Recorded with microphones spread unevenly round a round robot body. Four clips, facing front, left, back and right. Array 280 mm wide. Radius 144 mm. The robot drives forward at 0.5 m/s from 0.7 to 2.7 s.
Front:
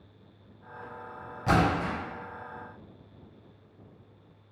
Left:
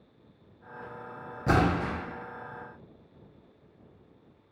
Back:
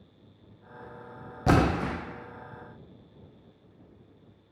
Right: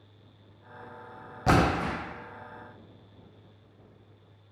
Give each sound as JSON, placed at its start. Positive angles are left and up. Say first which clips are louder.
{"t": 1.5, "sound": "a splash", "louder": "right 1 dB, back 1 dB", "azimuth_deg": -170, "distance_m": 0.5}